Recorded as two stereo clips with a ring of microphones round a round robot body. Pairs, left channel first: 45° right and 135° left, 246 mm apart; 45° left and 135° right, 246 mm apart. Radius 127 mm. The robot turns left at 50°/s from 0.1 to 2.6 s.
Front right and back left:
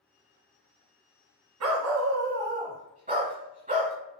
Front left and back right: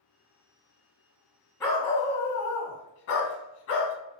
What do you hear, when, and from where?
1.6 s a dog barking: 125° left, 1.1 m; by 4.0 s 75° left, 1.1 m